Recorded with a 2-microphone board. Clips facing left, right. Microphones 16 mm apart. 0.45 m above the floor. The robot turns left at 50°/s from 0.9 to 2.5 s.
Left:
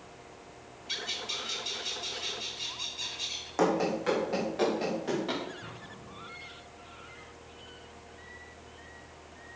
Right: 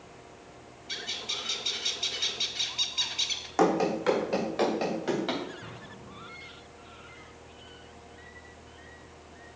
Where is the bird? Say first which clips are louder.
Even; 20° left, 0.9 m; by 3.5 s 60° right, 0.9 m.